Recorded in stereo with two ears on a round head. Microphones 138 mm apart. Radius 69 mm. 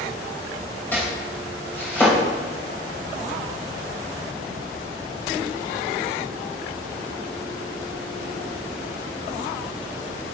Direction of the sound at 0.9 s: 15° left (ahead or behind).